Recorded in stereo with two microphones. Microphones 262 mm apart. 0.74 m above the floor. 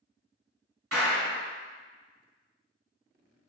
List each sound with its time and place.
0.9 s a clap: 65° right (ahead or behind), 1.6 m